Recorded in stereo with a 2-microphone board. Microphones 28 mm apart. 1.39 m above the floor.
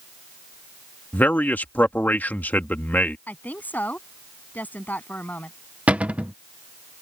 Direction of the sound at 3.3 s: 70° left (ahead or behind).